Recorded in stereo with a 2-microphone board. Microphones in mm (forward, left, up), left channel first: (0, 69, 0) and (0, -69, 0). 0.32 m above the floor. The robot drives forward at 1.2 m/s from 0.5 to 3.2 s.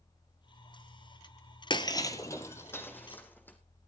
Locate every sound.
1.7 s breaking glass: 35° left (ahead or behind), 1.1 m; by 3.6 s 15° left (ahead or behind), 3 m